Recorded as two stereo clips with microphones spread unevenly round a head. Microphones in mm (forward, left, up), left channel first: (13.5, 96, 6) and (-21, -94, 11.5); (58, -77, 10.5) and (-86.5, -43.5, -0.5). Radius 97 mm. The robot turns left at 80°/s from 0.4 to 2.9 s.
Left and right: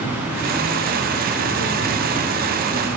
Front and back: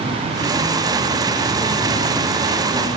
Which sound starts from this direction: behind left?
An insect, at 0.0 s.